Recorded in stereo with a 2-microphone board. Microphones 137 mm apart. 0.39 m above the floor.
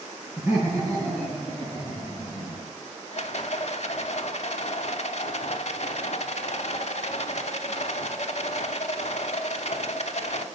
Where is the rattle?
60° left (ahead or behind), 0.7 m.